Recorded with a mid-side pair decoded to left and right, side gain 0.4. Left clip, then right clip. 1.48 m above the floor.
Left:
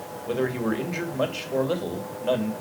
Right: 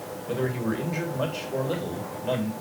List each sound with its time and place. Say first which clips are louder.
0.3 s a man speaking: left 3 dB; 40° left, 2.5 m